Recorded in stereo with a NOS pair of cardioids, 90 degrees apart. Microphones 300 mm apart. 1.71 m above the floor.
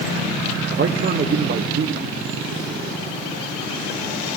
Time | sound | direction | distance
0.7 | a man speaking | 35° right | 1.0 m